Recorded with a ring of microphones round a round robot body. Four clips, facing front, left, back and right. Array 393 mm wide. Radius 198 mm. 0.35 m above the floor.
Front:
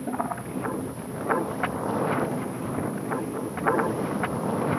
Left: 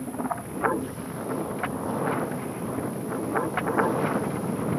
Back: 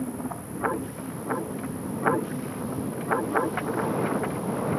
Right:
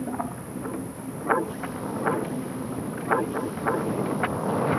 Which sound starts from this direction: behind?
An insect, at 0.0 s.